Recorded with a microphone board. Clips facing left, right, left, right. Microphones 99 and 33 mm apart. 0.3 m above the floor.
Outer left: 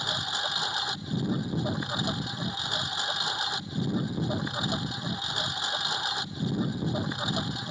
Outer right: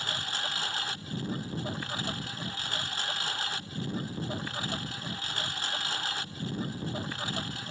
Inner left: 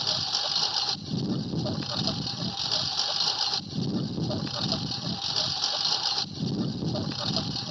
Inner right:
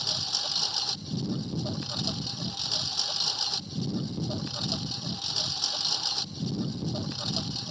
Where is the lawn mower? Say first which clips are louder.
Outer left 3 dB, inner left 2 dB; 15° left (ahead or behind).